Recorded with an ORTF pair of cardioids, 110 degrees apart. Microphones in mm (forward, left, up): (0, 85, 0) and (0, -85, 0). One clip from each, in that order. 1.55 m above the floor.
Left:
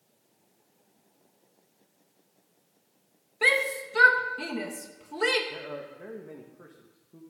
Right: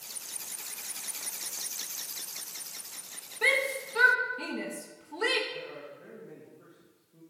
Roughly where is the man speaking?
Ahead left.